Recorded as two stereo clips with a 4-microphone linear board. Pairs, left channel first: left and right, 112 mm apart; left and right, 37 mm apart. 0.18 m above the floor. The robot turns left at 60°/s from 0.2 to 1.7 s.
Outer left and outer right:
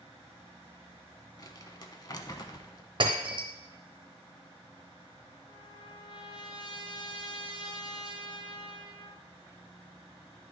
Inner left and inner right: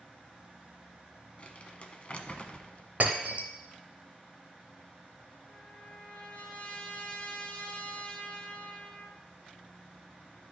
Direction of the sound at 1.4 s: 40° left (ahead or behind).